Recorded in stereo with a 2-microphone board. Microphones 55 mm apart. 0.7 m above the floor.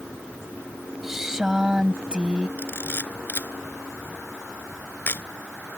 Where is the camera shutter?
40° left (ahead or behind).